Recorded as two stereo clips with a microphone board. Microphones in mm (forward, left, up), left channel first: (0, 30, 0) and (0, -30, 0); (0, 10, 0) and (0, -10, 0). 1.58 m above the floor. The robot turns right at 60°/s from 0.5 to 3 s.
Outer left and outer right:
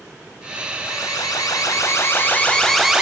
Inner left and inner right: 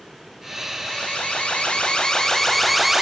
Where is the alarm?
65° left, 6 m; by 3.0 s 170° right, 6 m.